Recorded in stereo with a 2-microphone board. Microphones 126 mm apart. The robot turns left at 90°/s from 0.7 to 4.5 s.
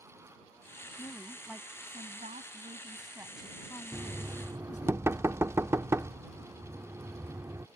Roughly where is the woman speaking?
Ahead left.